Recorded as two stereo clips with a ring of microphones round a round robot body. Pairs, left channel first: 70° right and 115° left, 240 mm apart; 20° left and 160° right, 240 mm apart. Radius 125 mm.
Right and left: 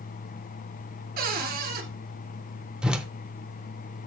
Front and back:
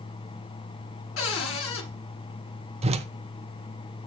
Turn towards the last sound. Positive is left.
turn(degrees=-165)